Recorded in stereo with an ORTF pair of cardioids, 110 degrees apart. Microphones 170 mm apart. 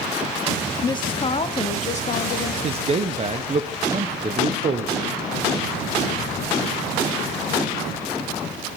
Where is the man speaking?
35° right, 0.7 m.